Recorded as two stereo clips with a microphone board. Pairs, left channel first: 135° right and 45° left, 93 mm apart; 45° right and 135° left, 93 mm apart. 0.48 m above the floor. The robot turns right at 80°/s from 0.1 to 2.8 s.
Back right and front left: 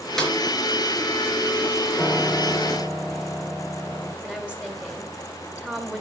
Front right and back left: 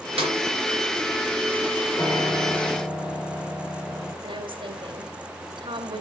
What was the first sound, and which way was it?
A snare drum, 140° left.